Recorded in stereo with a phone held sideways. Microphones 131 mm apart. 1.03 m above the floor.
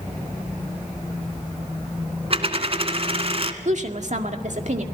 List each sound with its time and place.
2.3 s a dropped coin: 50° right (ahead or behind), 1.3 m
3.6 s a woman speaking: 65° right (ahead or behind), 2.0 m